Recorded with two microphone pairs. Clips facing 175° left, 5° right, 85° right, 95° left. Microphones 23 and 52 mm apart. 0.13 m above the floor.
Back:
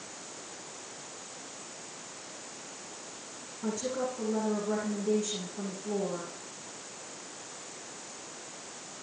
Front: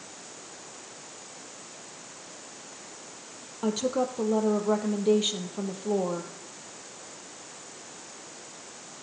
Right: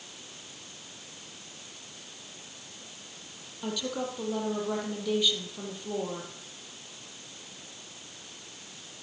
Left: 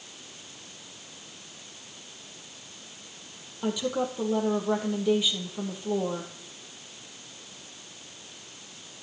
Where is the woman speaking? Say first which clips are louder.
Front 6 dB, left 5 dB; 15° left, 3 m.